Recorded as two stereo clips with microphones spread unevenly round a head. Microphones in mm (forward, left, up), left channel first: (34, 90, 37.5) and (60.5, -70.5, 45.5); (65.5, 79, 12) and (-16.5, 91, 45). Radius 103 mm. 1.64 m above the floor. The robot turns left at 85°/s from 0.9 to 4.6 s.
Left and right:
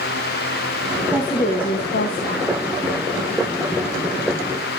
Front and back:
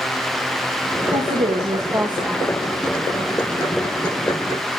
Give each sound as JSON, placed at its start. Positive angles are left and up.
{"t": 1.1, "sound": "a woman speaking", "azimuth_deg": -170, "distance_m": 1.6}